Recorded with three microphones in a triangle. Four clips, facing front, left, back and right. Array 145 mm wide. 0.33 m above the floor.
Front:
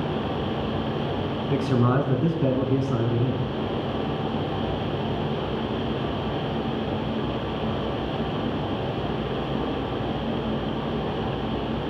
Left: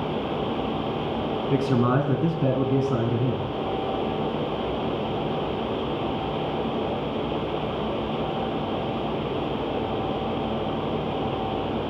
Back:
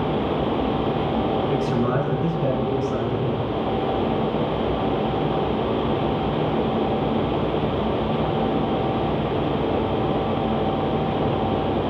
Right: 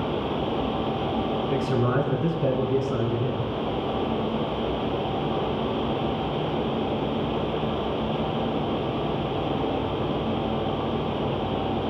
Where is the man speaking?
60° left, 3 m.